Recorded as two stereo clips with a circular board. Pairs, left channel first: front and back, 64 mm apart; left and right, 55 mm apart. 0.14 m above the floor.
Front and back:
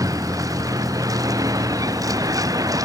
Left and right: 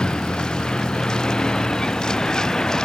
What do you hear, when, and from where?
0.0 s a vehicle: 165° left; by 2.9 s 170° left